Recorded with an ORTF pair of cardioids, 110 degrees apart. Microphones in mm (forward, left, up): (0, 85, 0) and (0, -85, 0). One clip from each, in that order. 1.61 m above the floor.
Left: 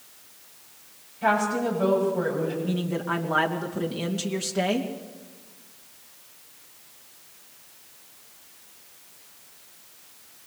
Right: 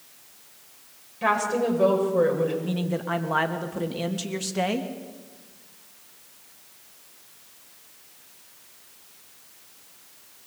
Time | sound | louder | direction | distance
1.2 | a woman speaking | even | 55° right | 8.5 m
2.6 | a man speaking | even | 10° right | 3 m